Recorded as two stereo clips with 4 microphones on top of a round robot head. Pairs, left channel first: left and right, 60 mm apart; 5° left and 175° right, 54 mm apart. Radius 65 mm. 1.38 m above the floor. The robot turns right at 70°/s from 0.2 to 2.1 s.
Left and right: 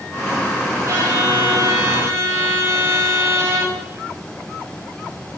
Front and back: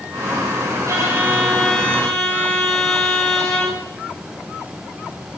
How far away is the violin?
About 8 m.